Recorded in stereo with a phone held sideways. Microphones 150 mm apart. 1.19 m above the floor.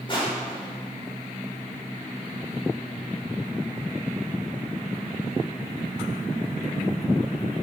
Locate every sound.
0.1 s crushing: 35° left (ahead or behind), 4.5 m